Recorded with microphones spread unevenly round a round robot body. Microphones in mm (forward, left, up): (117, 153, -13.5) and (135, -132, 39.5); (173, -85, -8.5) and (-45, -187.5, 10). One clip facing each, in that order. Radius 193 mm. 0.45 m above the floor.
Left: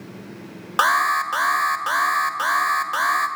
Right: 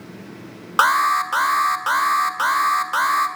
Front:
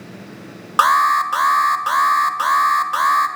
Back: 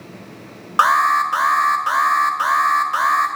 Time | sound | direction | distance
0.8 | an alarm | 5° right | 1.8 m